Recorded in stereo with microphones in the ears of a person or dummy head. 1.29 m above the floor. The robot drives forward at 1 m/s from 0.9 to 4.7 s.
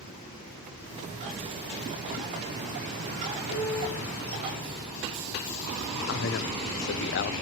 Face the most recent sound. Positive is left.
turn(degrees=55)  # may be behind; listen again after turning